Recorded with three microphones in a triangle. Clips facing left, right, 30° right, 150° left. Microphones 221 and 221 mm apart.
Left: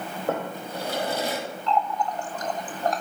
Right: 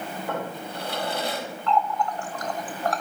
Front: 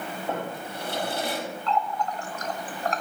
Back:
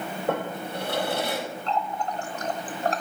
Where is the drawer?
130° left, 4.5 m.